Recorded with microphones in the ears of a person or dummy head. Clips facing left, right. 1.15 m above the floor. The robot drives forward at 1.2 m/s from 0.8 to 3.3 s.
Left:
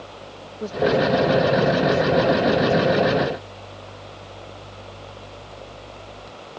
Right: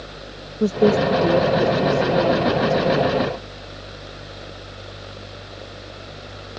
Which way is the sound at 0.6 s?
40° right (ahead or behind).